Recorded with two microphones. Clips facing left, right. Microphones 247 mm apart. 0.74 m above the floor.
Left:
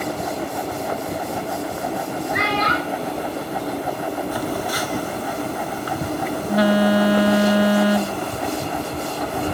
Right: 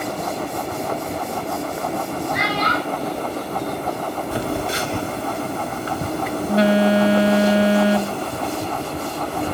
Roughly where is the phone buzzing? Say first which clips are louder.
Right 1 dB; right.